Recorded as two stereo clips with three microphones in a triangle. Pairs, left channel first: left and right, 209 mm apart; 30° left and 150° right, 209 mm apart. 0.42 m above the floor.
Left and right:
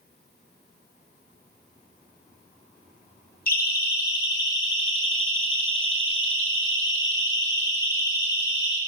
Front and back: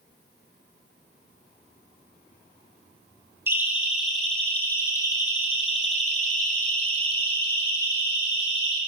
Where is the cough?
No cough in this recording.